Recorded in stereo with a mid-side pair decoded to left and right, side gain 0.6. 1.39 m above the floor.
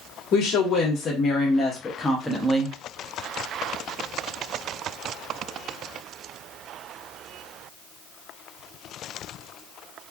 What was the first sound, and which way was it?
A woman speaking, 55° left.